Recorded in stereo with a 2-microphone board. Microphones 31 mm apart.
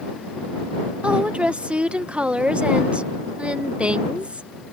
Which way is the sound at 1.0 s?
35° right (ahead or behind).